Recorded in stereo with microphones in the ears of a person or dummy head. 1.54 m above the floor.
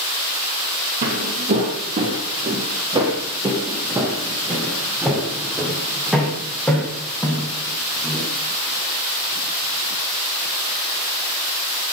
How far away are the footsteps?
About 2.5 m.